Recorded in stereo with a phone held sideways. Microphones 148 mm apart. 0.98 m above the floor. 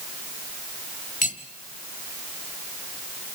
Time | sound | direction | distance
1.2 | cutlery clinking | 65° left (ahead or behind) | 1.4 m